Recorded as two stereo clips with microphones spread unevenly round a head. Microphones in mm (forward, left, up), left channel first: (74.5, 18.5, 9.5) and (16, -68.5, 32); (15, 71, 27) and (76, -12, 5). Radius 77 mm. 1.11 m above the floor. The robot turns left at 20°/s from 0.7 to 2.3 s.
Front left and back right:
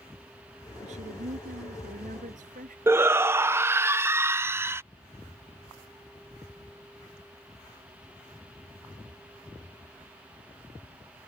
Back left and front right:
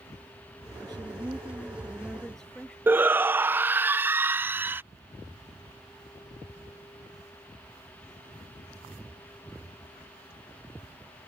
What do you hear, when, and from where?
0.8 s a woman speaking: 115° right; by 2.8 s 145° right
2.9 s a shout: 55° right